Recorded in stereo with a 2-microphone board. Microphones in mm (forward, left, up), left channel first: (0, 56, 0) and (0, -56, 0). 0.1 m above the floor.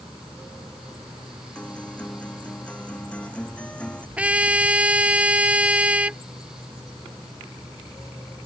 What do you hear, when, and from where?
1.6 s a guitar: 10° left (ahead or behind)
4.2 s a trumpet: 10° right (ahead or behind)